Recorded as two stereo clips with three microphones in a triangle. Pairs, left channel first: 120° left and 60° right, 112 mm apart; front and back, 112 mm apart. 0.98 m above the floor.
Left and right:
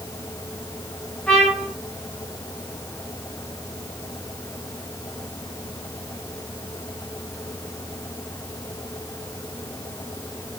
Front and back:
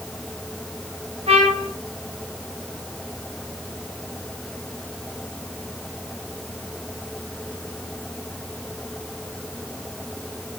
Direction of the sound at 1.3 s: 160° right.